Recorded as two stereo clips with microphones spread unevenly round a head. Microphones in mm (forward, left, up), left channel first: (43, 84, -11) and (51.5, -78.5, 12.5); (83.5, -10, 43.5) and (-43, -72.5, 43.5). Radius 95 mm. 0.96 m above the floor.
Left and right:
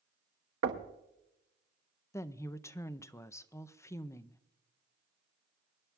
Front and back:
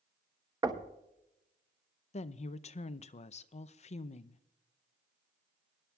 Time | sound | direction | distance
0.6 | knocking | 90° right | 1.0 m
2.1 | a woman speaking | 35° left | 0.5 m